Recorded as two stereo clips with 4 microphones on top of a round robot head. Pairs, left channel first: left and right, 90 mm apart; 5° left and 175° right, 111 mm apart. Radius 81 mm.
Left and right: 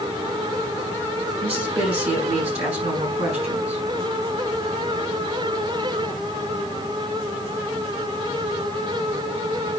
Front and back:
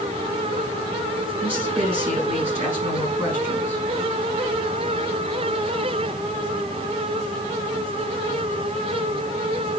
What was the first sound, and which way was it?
A woman speaking, 100° right.